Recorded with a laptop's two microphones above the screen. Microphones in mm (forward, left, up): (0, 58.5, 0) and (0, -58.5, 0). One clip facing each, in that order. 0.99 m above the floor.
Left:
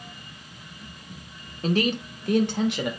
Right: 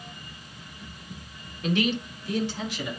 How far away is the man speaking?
About 0.9 m.